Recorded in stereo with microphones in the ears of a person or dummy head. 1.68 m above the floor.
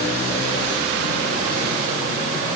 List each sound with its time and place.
Only background noise.